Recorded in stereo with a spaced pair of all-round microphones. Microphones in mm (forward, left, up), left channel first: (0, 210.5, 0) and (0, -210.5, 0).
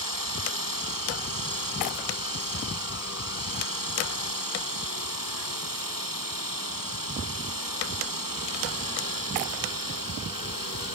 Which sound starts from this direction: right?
A machine running, at 0.0 s.